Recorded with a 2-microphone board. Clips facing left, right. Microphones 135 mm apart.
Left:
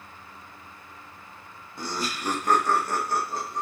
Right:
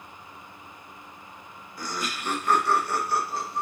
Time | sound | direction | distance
1.8 | laughter | 25° left (ahead or behind) | 0.6 m